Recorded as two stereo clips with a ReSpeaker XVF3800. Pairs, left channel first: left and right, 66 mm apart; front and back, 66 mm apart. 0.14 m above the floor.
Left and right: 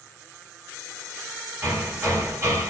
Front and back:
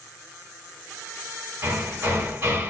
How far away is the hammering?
About 2.5 m.